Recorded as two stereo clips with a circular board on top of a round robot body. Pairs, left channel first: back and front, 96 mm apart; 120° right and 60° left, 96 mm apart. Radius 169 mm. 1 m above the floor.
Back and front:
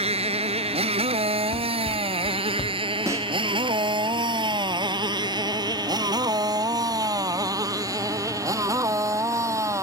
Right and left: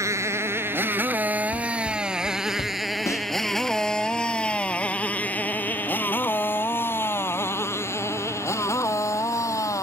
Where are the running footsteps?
140° right.